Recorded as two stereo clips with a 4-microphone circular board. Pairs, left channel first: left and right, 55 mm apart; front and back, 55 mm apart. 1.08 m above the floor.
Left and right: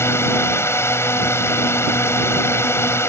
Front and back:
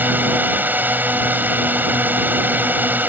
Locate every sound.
0.0 s a drone: 125° left